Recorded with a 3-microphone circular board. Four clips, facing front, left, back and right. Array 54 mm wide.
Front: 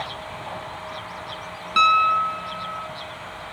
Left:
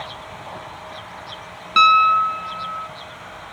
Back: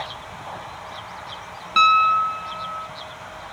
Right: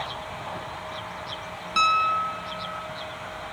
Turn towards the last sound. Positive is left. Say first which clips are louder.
# left 8 dB, back 1 dB
turn(degrees=100)